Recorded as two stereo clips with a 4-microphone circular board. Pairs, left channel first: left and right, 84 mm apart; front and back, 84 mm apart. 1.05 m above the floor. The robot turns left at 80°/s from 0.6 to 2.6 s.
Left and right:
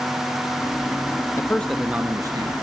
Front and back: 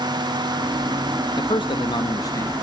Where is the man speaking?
30° left, 1.0 m; by 2.5 s 65° right, 1.0 m.